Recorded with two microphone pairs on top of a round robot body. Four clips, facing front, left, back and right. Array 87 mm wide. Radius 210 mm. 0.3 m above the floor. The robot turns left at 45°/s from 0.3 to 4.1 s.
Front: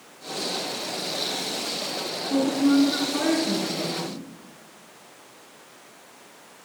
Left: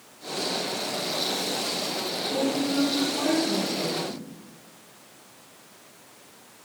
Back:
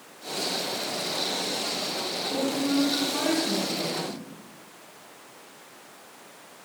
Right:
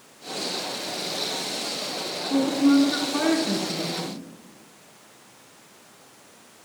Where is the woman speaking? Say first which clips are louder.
Right 7 dB, front 6 dB; 55° right, 5.5 m; by 4.2 s 135° right, 5.5 m.